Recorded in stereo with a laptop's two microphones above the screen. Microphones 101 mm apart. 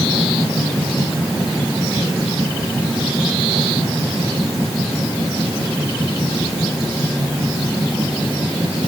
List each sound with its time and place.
Only background noise.